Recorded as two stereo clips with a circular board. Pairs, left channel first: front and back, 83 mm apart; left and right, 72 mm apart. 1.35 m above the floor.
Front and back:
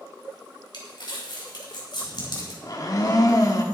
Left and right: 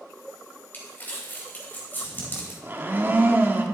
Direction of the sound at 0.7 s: 25° left.